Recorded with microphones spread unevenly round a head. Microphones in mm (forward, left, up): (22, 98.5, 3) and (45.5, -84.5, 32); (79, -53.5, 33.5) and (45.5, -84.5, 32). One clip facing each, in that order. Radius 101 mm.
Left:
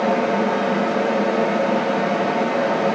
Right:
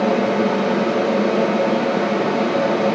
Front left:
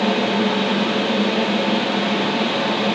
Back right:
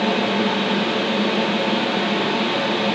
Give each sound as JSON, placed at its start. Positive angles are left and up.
{"t": 0.0, "sound": "a fan", "azimuth_deg": -50, "distance_m": 0.9}